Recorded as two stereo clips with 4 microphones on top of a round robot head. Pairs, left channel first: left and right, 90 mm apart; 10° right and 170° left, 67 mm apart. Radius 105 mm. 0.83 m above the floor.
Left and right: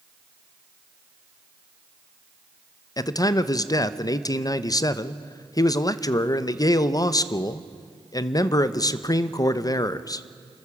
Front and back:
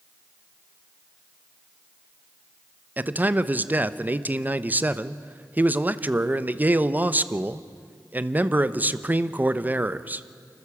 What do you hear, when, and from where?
3.0 s a man speaking: 115° left, 0.9 m